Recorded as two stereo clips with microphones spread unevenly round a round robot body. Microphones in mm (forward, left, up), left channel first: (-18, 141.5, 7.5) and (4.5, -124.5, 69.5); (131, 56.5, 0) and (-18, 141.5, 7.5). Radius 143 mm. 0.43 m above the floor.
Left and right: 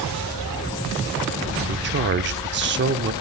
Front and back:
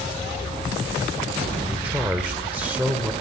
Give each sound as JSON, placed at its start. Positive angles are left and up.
{"t": 1.7, "sound": "a man speaking", "azimuth_deg": -130, "distance_m": 1.1}